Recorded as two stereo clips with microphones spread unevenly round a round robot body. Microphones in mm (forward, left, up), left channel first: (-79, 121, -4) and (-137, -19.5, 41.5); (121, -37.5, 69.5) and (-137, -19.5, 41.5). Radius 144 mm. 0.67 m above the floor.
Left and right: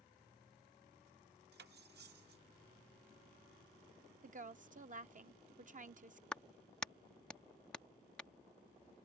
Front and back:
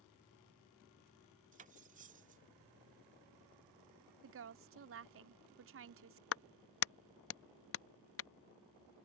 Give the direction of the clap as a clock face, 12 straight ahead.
12 o'clock.